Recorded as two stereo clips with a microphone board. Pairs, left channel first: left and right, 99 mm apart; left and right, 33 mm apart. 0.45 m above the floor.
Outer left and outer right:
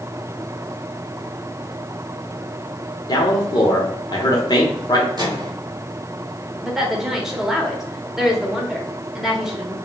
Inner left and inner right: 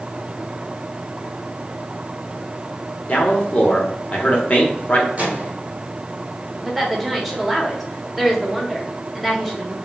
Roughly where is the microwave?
Right.